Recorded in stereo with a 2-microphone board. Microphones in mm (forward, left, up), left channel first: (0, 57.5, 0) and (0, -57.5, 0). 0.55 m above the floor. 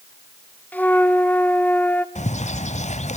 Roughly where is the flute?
Centre.